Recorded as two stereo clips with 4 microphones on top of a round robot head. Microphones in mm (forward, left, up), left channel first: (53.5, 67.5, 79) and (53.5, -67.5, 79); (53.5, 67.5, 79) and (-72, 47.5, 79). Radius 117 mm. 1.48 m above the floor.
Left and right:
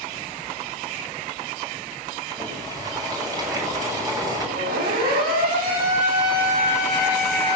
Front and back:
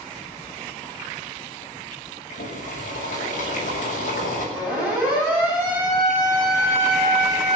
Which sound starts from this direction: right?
A siren, at 4.5 s.